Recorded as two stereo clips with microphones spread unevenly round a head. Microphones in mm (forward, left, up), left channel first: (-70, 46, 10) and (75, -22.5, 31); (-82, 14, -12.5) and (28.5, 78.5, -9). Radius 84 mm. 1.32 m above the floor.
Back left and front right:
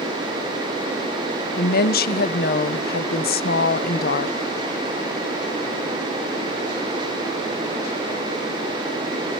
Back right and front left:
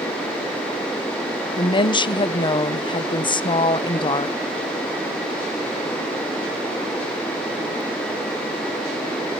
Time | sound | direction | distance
1.6 | a woman speaking | 160° left | 1.0 m